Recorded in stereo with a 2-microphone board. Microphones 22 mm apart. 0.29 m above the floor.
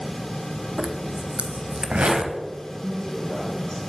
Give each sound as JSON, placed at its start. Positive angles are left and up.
{"t": 0.8, "sound": "a zipper", "side_deg": -55, "distance_m": 0.7}
{"t": 2.8, "sound": "a woman speaking", "side_deg": 40, "distance_m": 3.0}